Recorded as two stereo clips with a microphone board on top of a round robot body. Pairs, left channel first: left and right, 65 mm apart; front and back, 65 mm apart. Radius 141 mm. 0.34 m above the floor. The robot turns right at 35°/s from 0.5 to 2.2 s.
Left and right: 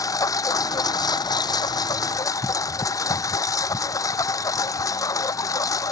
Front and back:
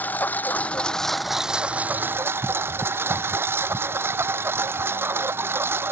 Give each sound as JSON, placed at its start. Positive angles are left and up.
{"t": 0.0, "sound": "a lawn mower", "azimuth_deg": 65}